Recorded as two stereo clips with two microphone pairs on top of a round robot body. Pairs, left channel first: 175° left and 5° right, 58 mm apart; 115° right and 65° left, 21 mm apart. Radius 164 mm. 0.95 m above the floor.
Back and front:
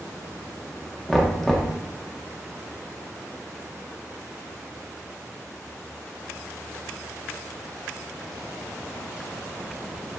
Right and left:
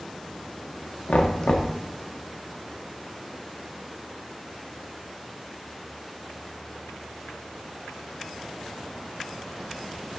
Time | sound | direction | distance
1.1 | knocking | 95° right | 0.6 m